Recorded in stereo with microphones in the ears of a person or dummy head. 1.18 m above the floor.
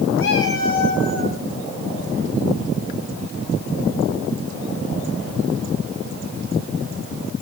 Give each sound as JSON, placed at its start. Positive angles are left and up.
{"t": 0.2, "sound": "a cat meowing", "side_deg": 75, "distance_m": 4.5}